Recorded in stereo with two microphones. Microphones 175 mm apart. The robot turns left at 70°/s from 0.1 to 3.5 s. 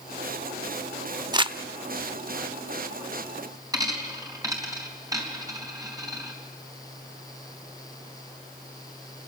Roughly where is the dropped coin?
Right.